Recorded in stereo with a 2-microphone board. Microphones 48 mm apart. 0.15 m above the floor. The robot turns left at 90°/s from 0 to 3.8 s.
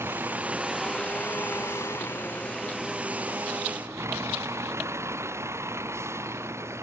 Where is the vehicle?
110° right; by 6.8 s 90° right.